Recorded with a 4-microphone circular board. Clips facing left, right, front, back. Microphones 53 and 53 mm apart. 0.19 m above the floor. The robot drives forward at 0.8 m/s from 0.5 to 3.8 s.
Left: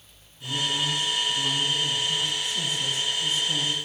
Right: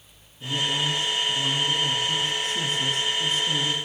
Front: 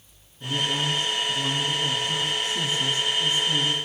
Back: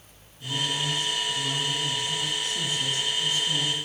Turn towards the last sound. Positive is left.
turn(degrees=-75)